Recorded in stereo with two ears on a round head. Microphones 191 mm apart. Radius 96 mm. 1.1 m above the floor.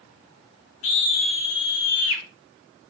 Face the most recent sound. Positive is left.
turn(degrees=75)  # may be behind; listen again after turning